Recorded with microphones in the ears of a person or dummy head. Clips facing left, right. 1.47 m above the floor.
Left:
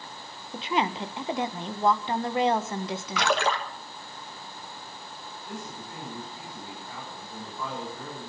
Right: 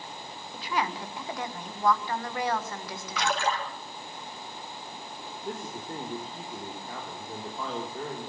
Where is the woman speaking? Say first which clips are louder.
Left 4 dB; 20° left (ahead or behind), 1.2 m.